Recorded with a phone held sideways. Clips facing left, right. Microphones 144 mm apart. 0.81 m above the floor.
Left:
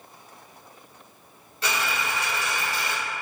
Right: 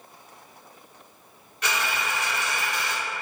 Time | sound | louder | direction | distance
1.6 | a dropped coin | even | 30° left (ahead or behind) | 0.8 m